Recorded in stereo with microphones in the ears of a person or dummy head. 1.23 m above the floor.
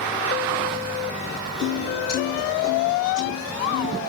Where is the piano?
45° left (ahead or behind), 2.5 m.